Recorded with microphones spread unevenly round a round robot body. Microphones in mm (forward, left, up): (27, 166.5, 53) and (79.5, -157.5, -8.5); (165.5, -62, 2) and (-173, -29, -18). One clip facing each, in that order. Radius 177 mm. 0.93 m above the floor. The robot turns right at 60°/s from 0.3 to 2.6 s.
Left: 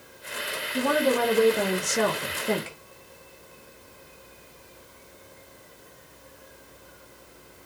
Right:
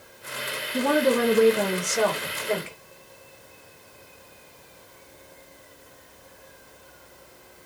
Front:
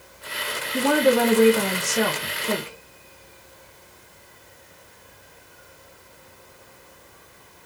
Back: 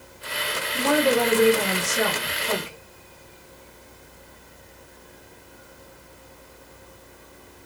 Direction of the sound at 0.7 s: 50° right.